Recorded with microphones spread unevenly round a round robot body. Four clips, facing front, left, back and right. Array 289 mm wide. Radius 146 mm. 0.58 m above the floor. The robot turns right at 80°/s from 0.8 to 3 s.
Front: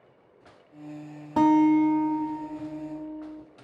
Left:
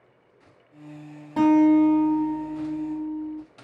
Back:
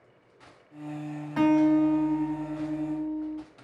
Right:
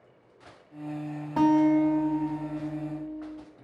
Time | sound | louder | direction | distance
1.4 | a guitar | left 4 dB, front 2 dB | 5° right | 1.9 m